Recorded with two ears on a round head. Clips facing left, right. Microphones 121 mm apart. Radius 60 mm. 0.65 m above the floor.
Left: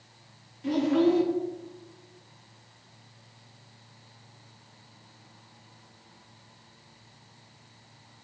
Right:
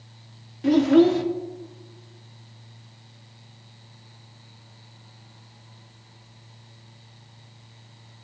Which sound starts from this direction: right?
A child speaking, at 0.6 s.